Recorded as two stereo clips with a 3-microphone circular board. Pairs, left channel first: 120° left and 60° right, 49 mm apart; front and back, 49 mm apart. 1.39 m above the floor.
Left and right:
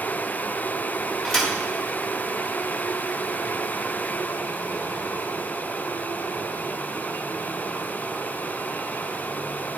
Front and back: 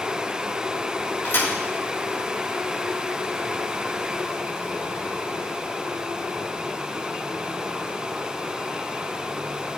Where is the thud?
35° left, 3 m.